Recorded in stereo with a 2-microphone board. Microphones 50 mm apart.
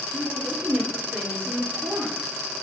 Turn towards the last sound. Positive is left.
turn(degrees=-45)  # may be behind; listen again after turning